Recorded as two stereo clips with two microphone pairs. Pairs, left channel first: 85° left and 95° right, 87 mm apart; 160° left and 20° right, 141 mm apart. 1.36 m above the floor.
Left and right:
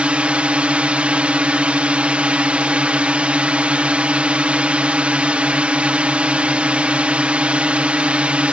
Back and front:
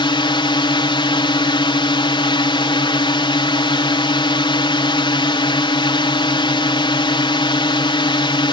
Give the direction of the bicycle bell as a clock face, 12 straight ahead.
No bicycle bell in this recording.